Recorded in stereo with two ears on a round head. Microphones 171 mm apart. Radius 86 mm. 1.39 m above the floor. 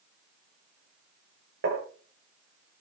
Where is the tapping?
65° right (ahead or behind), 5.5 m.